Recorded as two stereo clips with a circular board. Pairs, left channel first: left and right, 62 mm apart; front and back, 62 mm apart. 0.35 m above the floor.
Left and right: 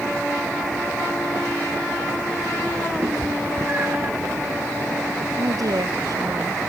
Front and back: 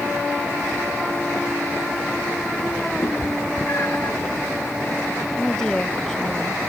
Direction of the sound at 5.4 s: 85° right.